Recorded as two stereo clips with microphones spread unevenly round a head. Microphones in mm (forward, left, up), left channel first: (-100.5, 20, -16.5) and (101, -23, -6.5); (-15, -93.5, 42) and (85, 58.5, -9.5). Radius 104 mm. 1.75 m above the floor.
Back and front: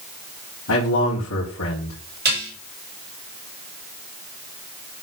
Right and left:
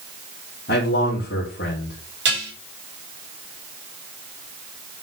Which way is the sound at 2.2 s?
30° left.